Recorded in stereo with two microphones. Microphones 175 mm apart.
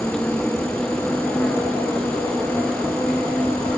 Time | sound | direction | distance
0.0 | an insect | 5° left (ahead or behind) | ?